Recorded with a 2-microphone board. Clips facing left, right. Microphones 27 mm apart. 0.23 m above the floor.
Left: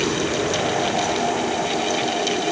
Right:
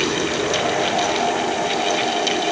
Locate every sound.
Only background noise.